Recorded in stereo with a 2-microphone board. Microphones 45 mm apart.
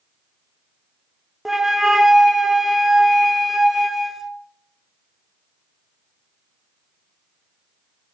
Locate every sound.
1.4 s a flute: 5° right (ahead or behind), 0.6 m